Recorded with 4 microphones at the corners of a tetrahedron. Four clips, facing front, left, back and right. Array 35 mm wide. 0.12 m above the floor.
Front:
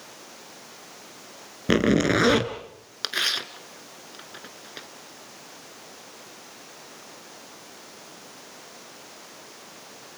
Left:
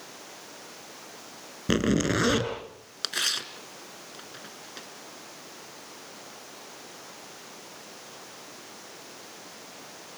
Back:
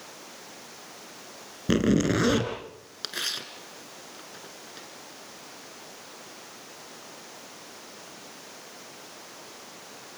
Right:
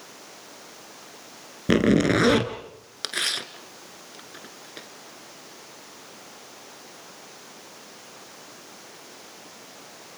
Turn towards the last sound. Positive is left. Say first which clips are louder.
# right 1 dB, front 6 dB
turn(degrees=-15)